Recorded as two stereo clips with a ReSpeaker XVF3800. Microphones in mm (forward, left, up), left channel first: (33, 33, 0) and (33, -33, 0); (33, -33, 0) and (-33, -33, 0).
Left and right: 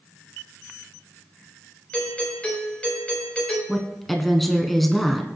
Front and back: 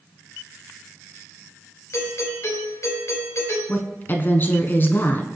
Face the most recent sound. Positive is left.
turn(degrees=5)